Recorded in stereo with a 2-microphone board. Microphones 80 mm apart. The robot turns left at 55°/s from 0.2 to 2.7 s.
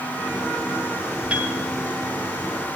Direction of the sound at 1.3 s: 15° right (ahead or behind).